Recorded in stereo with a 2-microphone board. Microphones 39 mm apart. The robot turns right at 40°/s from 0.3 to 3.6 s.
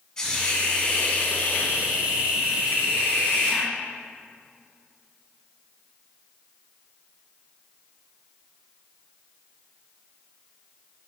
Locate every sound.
0.2 s a hiss: 15° left, 1.4 m; by 3.7 s 150° left, 1.4 m